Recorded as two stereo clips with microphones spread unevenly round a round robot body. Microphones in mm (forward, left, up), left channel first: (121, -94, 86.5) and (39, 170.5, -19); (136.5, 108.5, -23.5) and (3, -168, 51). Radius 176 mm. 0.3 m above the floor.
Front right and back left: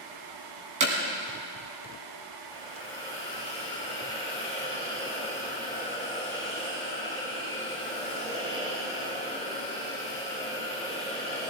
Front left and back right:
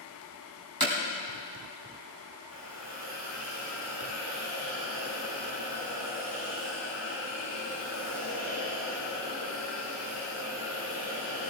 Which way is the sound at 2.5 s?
170° right.